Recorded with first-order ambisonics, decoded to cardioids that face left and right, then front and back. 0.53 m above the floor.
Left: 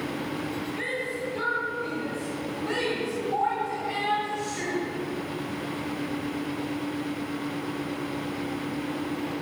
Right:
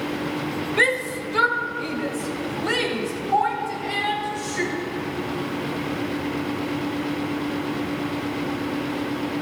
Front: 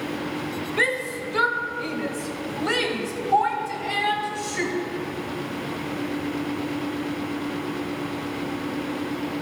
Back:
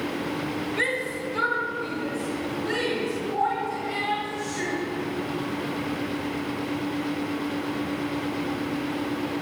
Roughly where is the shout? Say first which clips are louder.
Right 12 dB, front 4 dB; right.